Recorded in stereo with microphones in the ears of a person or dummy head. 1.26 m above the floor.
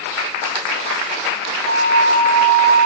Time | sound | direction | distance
1.7 | a flute | 75° right (ahead or behind) | 2.5 m